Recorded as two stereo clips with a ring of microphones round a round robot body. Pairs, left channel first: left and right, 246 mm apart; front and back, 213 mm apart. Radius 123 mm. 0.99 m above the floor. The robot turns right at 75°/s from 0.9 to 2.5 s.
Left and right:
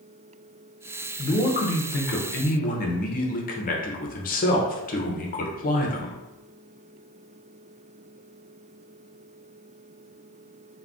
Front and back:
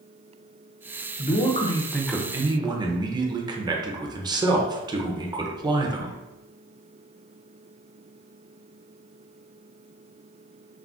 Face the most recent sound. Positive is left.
turn(degrees=120)